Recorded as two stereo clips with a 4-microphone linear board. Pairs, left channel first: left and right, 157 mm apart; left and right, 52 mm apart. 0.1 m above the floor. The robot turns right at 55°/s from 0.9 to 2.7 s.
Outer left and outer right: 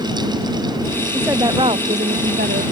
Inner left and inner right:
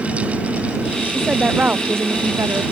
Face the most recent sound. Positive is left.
turn(degrees=-85)